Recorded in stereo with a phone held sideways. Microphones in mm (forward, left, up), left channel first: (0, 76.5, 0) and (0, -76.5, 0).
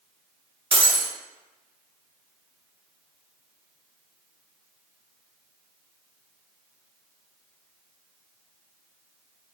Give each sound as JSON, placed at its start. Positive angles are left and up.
{"t": 0.7, "sound": "breaking glass", "side_deg": -40, "distance_m": 0.9}